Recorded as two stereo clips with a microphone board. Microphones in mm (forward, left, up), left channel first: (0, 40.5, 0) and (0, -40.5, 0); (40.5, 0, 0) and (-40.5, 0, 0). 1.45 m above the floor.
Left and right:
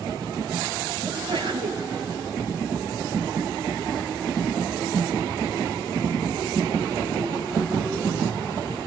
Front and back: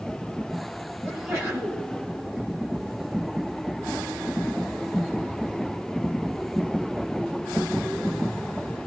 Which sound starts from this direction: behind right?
A sneeze, at 1.0 s.